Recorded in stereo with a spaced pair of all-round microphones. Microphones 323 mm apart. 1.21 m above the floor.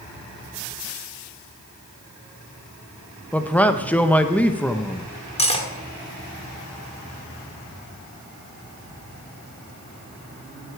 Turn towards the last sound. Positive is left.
turn(degrees=20)  # may be behind; listen again after turning